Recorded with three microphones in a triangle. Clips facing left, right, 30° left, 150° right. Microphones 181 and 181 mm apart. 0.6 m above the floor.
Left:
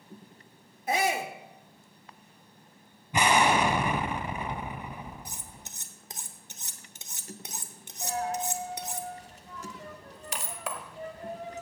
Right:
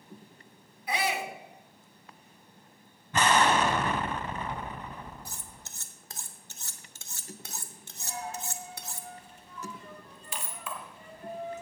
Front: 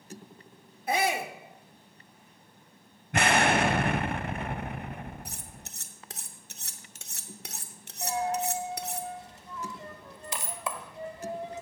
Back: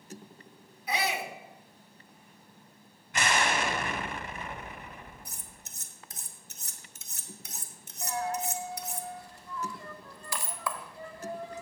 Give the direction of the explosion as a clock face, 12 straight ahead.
11 o'clock.